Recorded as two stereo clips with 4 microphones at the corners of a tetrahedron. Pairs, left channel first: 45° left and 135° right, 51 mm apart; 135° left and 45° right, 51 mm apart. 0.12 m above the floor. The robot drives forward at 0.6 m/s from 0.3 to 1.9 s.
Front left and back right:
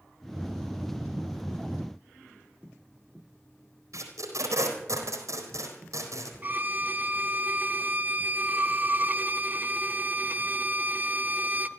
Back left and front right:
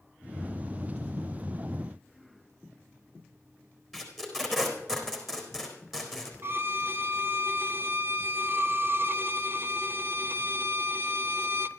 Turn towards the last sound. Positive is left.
turn(degrees=-85)